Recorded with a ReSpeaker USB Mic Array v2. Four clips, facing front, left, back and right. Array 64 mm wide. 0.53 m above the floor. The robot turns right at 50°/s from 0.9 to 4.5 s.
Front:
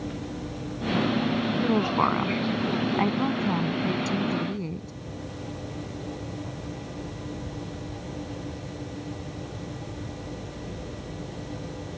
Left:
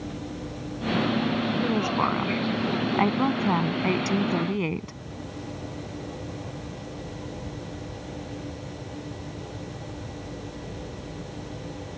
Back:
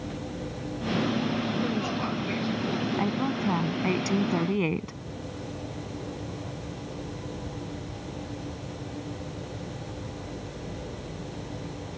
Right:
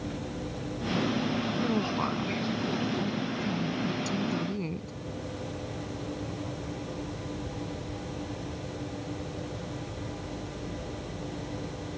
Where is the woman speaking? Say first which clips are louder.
Left 5 dB, front 6 dB; 5° left; by 4.9 s 150° left.